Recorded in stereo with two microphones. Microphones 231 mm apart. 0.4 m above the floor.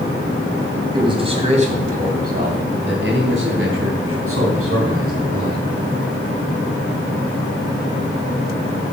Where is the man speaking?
20° right (ahead or behind), 3.5 m; by 5.7 s 75° right (ahead or behind), 5 m.